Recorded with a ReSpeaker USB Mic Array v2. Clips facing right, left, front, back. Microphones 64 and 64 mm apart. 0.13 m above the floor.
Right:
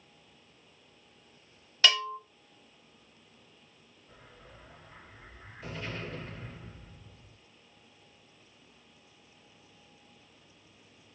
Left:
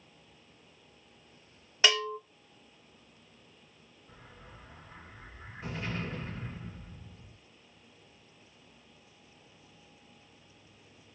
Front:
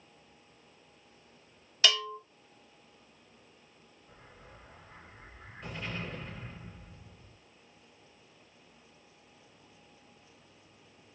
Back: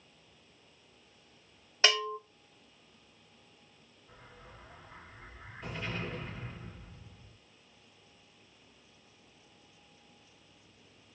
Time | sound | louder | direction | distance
1.8 | a bell | right 1 dB, back 1 dB | 150° left | 1.1 m
4.1 | an explosion | left 1 dB, back 1 dB | 100° left | 1.9 m